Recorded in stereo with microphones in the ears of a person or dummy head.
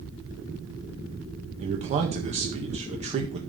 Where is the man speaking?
30° right (ahead or behind), 1.8 m.